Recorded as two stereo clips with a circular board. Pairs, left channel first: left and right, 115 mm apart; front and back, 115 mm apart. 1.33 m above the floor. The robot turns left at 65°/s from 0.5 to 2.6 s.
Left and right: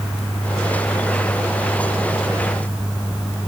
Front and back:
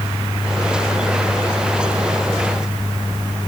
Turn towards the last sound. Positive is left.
No sound to turn to.